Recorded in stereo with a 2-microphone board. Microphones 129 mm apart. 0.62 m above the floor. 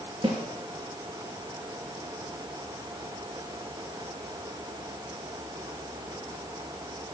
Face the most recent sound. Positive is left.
turn(degrees=-35)  # may be behind; listen again after turning